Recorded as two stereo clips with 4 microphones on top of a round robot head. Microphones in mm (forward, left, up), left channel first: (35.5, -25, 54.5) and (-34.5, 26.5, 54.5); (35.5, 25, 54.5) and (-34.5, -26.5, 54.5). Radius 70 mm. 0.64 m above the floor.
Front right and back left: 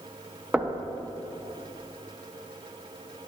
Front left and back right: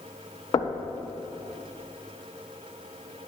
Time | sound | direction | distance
0.5 | knocking | 70° left | 0.5 m